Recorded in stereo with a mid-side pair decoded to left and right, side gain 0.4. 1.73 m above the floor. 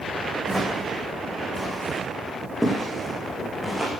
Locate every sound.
0.5 s footsteps: 5° left, 8 m; by 3.9 s 10° right, 7 m